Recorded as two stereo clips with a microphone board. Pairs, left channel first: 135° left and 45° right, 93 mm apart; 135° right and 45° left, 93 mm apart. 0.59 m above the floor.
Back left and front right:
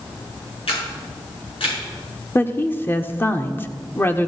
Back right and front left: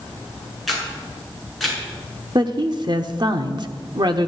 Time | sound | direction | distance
0.7 | a camera shutter | 135° left | 6 m
2.4 | a woman speaking | 70° left | 1.1 m